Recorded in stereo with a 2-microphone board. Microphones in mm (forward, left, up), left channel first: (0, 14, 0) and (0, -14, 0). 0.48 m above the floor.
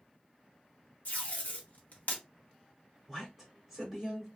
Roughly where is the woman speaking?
Centre.